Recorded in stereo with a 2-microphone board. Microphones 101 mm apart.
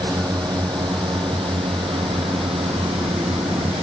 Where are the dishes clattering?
I don't hear dishes clattering.